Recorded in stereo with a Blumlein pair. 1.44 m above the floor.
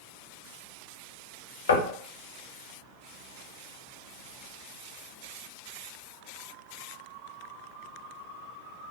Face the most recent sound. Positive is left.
turn(degrees=65)